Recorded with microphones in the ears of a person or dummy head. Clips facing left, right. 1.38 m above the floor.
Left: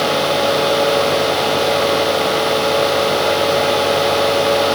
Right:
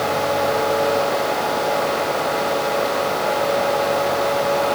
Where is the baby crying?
No baby crying in this recording.